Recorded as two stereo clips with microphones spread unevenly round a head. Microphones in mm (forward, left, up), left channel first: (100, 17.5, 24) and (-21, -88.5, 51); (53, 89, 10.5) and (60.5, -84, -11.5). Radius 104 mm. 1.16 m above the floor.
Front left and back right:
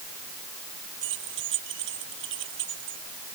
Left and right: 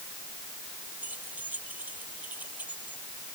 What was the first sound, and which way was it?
Keys jangling, 170° right.